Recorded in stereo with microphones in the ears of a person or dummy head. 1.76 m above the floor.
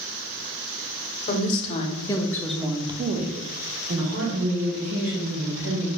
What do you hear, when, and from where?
1.3 s a woman speaking: 45° left (ahead or behind), 1.0 m; by 5.9 s 75° right (ahead or behind), 1.9 m